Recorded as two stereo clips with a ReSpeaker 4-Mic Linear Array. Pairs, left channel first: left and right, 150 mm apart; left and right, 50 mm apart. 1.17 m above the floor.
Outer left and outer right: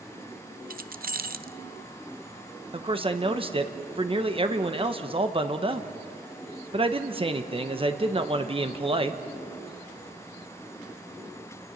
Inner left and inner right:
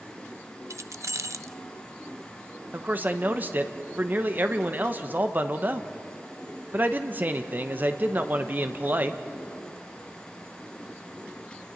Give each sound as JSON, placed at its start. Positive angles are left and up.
{"t": 0.7, "sound": "keys jangling", "side_deg": -75, "distance_m": 0.5}
{"t": 2.7, "sound": "a man speaking", "side_deg": -35, "distance_m": 1.1}